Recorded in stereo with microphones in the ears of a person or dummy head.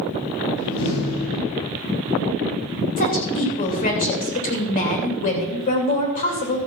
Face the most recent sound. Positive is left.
turn(degrees=40)  # may be behind; listen again after turning